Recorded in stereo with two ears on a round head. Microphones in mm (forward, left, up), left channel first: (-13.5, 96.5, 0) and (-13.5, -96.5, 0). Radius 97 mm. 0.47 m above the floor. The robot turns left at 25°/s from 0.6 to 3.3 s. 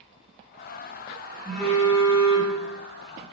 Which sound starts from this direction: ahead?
A phone buzzing, at 1.4 s.